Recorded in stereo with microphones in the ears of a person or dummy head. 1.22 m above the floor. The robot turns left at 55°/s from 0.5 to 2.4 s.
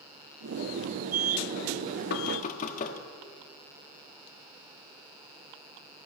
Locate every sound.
2.1 s knocking: 55° left (ahead or behind), 1.4 m; by 3.0 s 40° left (ahead or behind), 1.4 m